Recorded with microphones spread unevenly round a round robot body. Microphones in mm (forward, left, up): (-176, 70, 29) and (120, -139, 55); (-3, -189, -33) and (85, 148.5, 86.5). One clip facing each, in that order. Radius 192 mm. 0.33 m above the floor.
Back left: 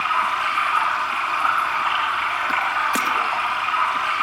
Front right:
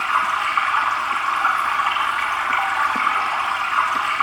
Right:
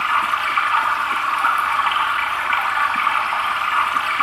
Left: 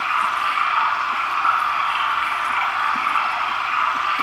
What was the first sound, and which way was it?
Running water, 90° right.